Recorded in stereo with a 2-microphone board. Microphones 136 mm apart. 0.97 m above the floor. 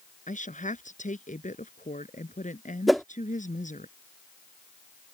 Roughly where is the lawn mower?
No lawn mower in this recording.